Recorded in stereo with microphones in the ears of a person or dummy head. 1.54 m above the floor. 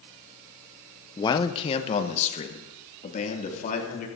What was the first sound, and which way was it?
A man speaking, 25° left (ahead or behind).